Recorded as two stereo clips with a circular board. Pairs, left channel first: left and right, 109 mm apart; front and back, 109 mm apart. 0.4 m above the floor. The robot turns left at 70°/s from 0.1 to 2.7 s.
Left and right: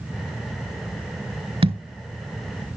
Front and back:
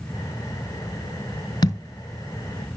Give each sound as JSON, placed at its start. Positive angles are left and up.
{"t": 1.6, "sound": "a thud", "azimuth_deg": -55, "distance_m": 1.8}